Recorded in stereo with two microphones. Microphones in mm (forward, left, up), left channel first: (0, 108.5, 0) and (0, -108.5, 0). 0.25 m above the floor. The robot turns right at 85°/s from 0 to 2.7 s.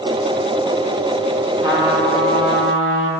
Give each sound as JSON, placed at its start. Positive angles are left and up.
{"t": 1.6, "sound": "a trumpet", "azimuth_deg": -25, "distance_m": 1.1}